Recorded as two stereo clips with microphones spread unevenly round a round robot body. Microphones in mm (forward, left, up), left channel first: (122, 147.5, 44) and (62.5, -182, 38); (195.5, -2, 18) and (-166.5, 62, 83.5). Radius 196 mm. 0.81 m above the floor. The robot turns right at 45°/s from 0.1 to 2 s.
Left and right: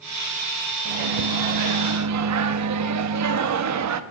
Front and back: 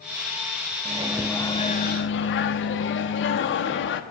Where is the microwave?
115° right, 0.8 m; by 4.0 s 65° right, 0.8 m.